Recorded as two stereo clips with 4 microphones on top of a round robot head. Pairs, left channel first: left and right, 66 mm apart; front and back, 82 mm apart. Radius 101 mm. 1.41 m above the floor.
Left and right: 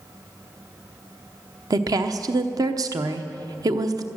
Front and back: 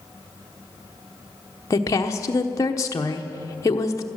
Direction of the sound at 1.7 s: 55° right.